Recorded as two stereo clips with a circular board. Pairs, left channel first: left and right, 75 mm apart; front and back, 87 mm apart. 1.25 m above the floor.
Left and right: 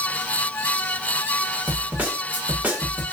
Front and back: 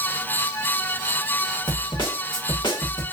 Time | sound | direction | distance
1.7 | a snare drum | 20° right | 1.7 m